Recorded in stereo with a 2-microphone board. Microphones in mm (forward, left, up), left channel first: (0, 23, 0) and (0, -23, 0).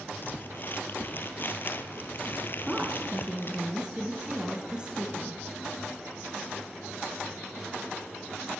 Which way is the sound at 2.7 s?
20° right (ahead or behind).